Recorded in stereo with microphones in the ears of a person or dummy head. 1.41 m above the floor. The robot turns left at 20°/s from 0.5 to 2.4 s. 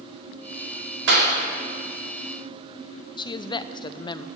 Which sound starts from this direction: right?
A clap, at 1.1 s.